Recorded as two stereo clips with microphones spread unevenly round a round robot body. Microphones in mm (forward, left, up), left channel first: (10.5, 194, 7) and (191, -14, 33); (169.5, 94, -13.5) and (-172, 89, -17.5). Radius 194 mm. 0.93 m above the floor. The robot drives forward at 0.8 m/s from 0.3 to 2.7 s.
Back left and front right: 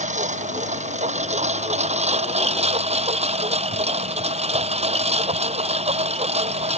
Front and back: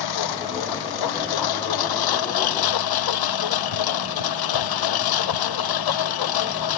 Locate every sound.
0.0 s a lawn mower: 15° left; by 6.8 s 20° left